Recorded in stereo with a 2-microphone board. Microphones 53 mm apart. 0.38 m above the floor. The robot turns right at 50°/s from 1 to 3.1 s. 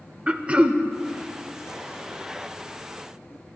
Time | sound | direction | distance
0.3 | throat clearing | 25° right (ahead or behind) | 0.7 m